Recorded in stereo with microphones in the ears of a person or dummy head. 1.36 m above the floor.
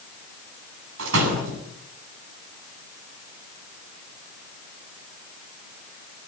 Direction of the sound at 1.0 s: 70° right (ahead or behind).